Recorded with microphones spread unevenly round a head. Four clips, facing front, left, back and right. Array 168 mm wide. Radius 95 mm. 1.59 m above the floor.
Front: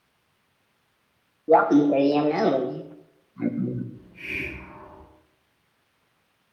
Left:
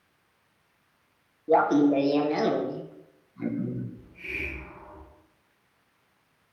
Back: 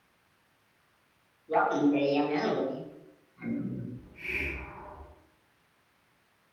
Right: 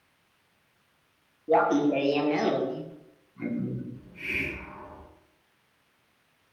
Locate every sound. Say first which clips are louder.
1.5 s laughter: left 2 dB, front 8 dB; 5° left, 1.9 m
3.9 s a hiss: right 3 dB, front 3 dB; 40° right, 7.5 m